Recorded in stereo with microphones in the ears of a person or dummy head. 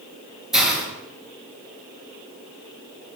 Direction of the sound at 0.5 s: 5° right (ahead or behind).